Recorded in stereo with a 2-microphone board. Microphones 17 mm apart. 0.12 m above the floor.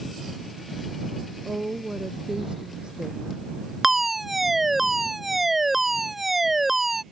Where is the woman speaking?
60° right (ahead or behind); by 3.5 s 50° right (ahead or behind).